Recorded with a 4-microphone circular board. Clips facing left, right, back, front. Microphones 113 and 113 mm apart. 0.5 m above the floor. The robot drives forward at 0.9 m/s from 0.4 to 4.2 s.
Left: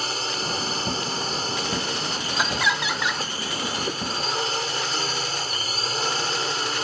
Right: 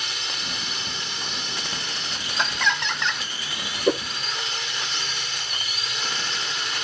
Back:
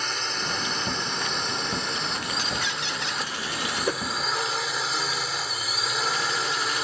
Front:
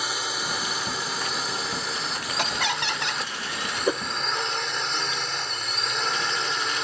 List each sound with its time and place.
0.0 s a drone: 80° left; by 6.8 s 95° left
2.4 s laughter: 5° left; by 3.2 s 10° left
3.9 s a whoosh: 75° right; by 4.0 s 90° right